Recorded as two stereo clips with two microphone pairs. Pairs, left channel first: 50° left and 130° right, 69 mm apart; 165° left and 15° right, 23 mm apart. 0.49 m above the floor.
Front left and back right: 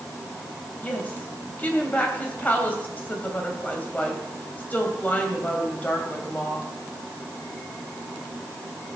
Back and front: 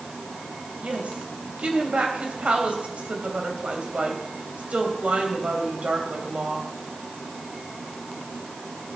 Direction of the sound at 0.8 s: 15° right.